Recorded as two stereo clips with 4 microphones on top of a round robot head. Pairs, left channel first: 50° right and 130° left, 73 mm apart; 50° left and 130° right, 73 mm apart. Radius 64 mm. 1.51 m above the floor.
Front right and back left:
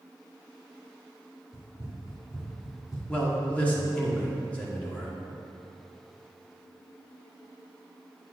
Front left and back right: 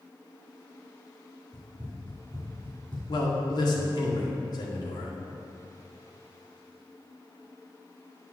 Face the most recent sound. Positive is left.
turn(degrees=25)